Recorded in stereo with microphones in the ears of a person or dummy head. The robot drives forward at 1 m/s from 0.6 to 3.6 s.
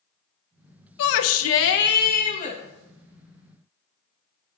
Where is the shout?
70° left (ahead or behind), 0.9 m; by 2.6 s 35° left (ahead or behind), 1.6 m.